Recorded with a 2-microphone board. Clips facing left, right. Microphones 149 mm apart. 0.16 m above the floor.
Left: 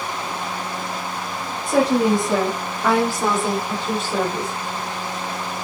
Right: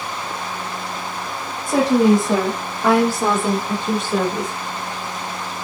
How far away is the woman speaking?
About 4 m.